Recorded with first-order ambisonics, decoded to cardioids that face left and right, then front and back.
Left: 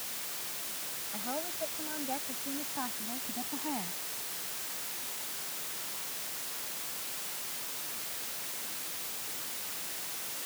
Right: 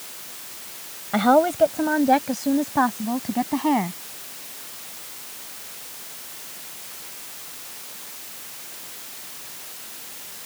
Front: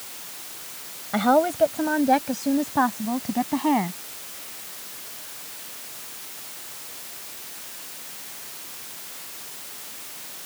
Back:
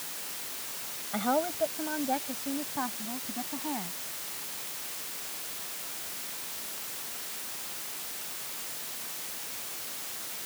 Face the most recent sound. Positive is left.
turn(degrees=-45)